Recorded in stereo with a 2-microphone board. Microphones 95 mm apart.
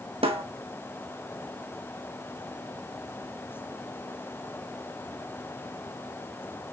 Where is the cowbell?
No cowbell in this recording.